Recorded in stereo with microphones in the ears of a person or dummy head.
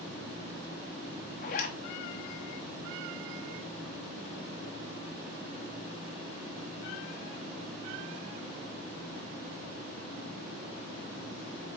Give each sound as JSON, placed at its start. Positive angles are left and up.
{"t": 1.4, "sound": "a zipper", "side_deg": 45, "distance_m": 0.7}